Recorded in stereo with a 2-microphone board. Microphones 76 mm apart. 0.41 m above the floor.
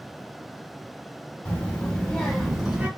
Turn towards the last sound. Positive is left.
turn(degrees=-15)  # may be behind; listen again after turning